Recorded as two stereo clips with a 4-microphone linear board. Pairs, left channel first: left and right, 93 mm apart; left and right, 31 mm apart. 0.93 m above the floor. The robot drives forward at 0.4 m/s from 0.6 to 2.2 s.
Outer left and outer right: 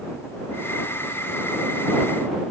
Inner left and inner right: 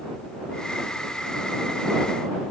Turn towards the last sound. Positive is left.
No sound to turn to.